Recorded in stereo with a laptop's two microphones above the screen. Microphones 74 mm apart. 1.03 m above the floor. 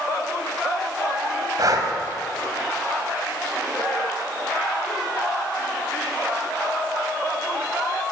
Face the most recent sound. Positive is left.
turn(degrees=-55)  # may be behind; listen again after turning